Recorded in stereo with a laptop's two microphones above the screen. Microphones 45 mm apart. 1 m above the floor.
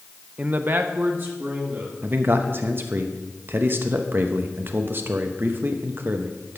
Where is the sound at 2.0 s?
50° right (ahead or behind), 0.8 m.